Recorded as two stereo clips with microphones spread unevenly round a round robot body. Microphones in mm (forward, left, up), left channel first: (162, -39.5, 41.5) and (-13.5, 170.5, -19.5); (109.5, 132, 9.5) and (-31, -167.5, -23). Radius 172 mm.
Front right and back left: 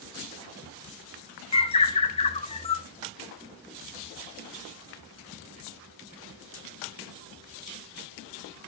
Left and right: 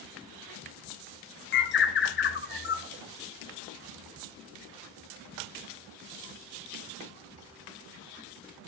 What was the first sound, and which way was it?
A bird, 25° left.